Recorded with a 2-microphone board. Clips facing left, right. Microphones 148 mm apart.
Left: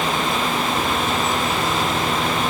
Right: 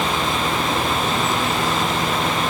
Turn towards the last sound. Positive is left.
No sound to turn to.